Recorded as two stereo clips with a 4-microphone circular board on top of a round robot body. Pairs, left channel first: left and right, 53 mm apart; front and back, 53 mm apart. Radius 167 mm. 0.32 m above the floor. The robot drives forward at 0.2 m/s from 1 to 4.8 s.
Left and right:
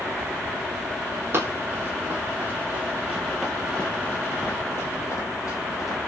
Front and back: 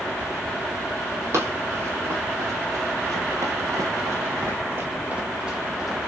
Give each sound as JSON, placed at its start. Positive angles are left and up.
{"t": 1.3, "sound": "running footsteps", "azimuth_deg": -135, "distance_m": 1.2}